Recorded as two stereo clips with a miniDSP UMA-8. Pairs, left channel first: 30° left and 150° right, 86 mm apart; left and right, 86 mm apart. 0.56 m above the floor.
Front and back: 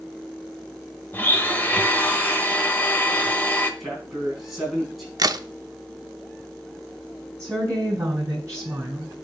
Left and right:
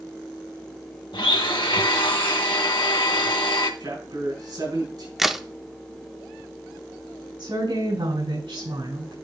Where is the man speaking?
65° right, 4.5 m.